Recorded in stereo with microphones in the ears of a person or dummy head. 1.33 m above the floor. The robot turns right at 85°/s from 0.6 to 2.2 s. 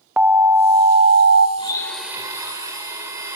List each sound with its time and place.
0.2 s an alarm: 170° right, 0.6 m; by 1.5 s 100° right, 0.6 m
1.6 s a blender: 145° left, 1.9 m; by 3.4 s 165° right, 1.9 m